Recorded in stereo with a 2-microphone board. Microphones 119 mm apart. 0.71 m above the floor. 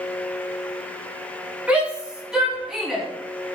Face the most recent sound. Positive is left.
turn(degrees=0)  # may be behind; listen again after turning